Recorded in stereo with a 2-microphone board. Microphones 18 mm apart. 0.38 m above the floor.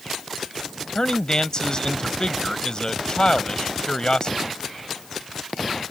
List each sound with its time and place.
0.9 s a man speaking: 50° left (ahead or behind)